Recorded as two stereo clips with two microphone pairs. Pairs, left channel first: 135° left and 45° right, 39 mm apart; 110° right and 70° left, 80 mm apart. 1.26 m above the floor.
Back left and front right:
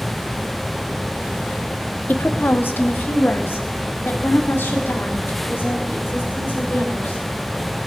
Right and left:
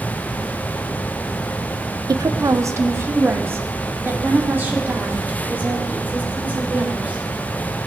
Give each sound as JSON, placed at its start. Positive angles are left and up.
{"t": 2.1, "sound": "a woman speaking", "azimuth_deg": 105, "distance_m": 0.5}